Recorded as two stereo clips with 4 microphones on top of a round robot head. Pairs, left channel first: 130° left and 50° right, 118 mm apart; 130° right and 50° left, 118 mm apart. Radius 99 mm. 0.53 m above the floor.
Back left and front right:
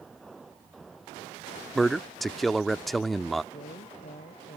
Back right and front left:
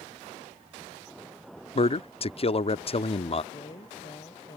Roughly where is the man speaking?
Behind right.